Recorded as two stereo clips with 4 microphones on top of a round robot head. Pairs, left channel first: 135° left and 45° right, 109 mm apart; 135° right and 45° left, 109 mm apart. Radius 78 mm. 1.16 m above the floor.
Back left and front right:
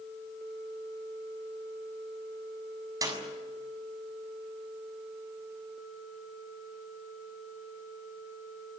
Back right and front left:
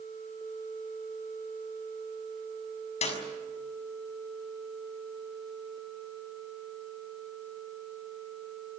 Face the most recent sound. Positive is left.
turn(degrees=-105)